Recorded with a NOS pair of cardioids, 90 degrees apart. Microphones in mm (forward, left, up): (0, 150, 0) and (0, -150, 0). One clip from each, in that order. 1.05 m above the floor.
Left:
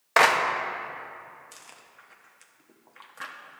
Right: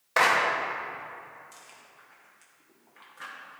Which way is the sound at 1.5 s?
40° left.